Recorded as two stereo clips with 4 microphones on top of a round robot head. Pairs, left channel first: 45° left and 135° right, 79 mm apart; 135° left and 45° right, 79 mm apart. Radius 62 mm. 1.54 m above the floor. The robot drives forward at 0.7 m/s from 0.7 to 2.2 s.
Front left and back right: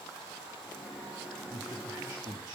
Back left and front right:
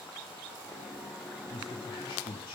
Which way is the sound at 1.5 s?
170° left.